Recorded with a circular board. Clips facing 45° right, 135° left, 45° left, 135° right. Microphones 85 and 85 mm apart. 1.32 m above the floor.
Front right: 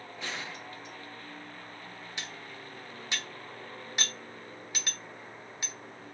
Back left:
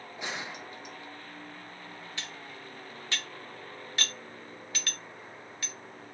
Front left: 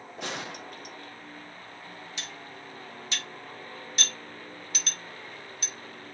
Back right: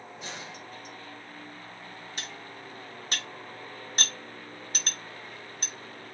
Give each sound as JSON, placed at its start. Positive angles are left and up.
{"t": 0.2, "sound": "a gunshot", "azimuth_deg": 65, "distance_m": 0.5}
{"t": 2.2, "sound": "cutlery clinking", "azimuth_deg": -110, "distance_m": 0.8}